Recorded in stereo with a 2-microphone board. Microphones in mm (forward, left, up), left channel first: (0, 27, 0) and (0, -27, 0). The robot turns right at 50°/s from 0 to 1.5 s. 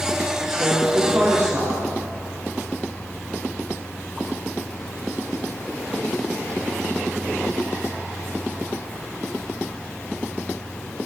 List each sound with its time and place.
0.5 s a woman speaking: 170° right, 7.5 m; by 1.8 s 120° right, 7.5 m